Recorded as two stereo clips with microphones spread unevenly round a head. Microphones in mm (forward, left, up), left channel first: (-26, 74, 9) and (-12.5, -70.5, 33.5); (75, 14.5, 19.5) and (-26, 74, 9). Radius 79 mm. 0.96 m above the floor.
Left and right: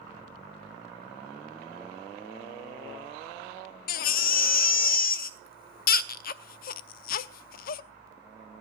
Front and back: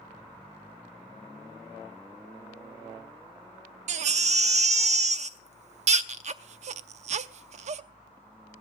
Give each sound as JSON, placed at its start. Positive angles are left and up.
{"t": 3.9, "sound": "a baby crying", "azimuth_deg": 125, "distance_m": 0.7}